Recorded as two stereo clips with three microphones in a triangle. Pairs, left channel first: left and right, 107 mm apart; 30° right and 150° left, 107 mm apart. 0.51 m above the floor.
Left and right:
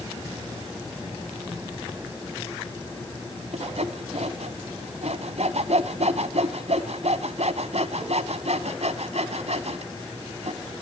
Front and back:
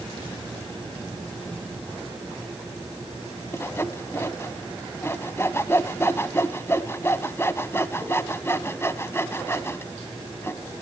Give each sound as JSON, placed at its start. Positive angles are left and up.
{"t": 3.5, "sound": "sawing", "azimuth_deg": -100, "distance_m": 1.0}